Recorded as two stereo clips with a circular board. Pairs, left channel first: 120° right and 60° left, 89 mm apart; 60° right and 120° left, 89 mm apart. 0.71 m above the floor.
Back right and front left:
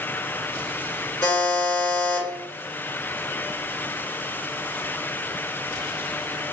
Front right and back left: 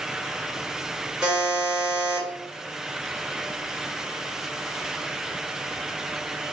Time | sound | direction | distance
1.2 | a buzzer | 165° right | 1.3 m